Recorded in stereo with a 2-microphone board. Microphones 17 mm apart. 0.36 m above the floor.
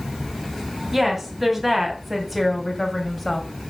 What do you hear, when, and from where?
0.9 s a woman speaking: 15° right (ahead or behind), 3 m; by 3.5 s 10° left (ahead or behind), 2.0 m